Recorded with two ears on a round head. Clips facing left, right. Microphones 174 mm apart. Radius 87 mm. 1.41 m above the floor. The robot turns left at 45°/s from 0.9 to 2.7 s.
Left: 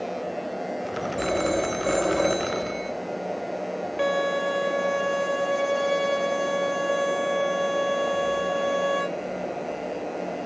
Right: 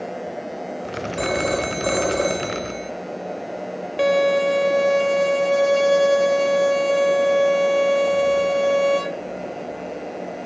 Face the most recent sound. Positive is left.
turn(degrees=-55)  # may be behind; listen again after turning